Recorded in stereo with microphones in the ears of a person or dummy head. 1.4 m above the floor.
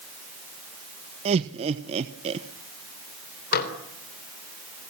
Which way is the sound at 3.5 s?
55° left (ahead or behind).